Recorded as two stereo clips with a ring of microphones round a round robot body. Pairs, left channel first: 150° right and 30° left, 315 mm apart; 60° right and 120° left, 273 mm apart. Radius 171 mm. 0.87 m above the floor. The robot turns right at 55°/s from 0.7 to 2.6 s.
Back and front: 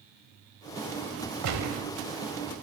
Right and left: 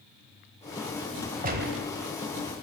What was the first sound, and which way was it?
A gunshot, 65° left.